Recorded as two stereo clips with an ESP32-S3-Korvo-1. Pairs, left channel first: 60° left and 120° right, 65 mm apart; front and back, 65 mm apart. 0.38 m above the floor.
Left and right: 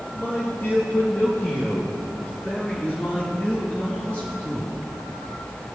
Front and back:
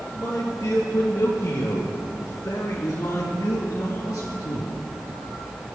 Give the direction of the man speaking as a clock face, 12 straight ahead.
11 o'clock.